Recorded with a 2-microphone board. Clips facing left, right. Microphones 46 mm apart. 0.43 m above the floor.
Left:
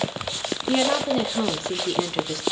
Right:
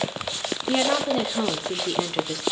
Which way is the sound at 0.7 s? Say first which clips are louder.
Left 1 dB; 5° right (ahead or behind).